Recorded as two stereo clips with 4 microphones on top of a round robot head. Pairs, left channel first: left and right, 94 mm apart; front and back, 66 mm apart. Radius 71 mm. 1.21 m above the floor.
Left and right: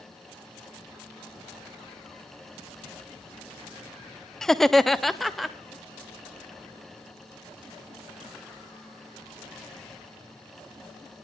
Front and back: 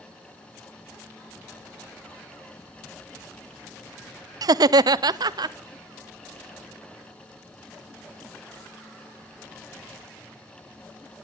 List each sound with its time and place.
4.4 s laughter: 175° left, 0.6 m; by 5.5 s straight behind, 1.2 m